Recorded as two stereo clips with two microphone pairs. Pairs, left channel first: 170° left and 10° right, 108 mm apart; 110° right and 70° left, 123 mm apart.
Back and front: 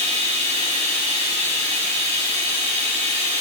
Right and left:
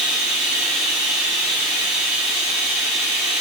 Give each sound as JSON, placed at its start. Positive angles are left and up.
{"t": 0.0, "sound": "running water", "azimuth_deg": -15, "distance_m": 2.5}